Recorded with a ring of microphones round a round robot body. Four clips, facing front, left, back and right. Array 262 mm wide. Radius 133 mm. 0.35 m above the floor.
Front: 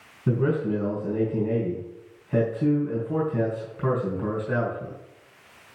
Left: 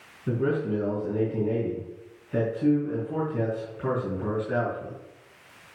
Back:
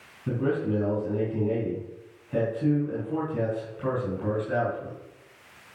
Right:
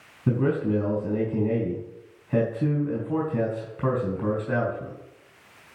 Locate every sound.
0.3 s a man speaking: 70° right, 4 m